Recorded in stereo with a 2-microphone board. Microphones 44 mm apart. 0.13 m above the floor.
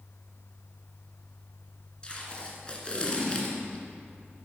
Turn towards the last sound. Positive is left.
turn(degrees=25)  # may be behind; listen again after turning